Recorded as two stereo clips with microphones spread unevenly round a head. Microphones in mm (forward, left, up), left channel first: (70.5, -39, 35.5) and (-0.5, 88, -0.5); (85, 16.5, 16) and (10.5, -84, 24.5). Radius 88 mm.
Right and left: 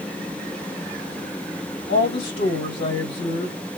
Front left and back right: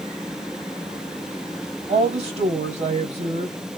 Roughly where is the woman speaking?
Right.